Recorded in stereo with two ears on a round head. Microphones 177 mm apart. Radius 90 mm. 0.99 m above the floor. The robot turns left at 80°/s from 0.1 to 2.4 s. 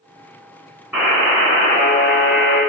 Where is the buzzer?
175° right, 1.6 m; by 2.6 s 70° left, 1.6 m.